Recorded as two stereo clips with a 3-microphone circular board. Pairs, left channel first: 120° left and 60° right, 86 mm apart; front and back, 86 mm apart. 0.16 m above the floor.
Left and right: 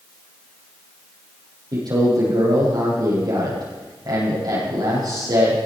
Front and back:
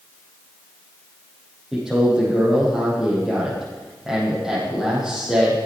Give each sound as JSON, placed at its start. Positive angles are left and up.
{"t": 1.7, "sound": "a man speaking", "azimuth_deg": -95, "distance_m": 7.0}